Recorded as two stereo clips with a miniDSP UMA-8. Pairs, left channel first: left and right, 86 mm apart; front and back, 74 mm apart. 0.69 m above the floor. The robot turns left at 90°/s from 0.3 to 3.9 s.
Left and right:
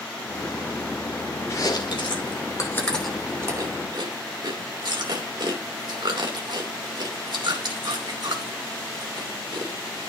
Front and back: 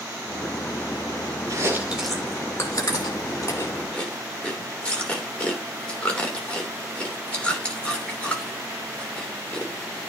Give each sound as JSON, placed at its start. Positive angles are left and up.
{"t": 1.5, "sound": "chewing", "azimuth_deg": 145, "distance_m": 2.5}